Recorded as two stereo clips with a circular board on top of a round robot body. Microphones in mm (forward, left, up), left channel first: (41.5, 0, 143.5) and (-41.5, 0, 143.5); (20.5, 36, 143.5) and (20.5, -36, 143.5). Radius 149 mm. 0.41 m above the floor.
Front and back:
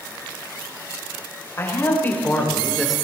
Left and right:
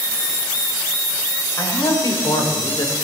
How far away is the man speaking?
About 3.5 m.